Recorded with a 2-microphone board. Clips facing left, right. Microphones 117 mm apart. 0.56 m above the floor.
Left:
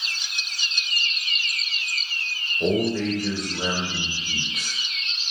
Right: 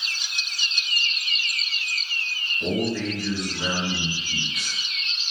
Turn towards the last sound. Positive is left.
turn(degrees=45)  # may be behind; listen again after turning